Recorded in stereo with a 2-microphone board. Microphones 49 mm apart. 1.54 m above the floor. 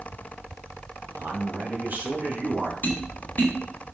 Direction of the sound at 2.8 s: 40° left (ahead or behind).